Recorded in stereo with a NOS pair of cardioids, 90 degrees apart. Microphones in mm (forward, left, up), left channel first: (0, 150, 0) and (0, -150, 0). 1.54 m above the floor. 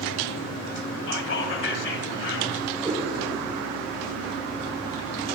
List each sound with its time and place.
1.1 s whispering: 40° left, 1.8 m
2.8 s a cat meowing: 10° right, 4.5 m